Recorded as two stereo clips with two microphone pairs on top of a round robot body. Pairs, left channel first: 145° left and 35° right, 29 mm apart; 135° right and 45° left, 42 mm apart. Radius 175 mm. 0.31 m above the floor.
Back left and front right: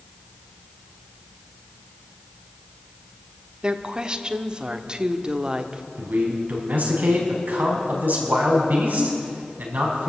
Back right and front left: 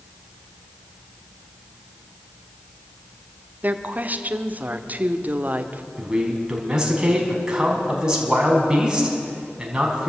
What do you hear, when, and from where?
3.6 s a woman speaking: 15° left, 1.5 m
6.0 s a man speaking: 25° right, 5 m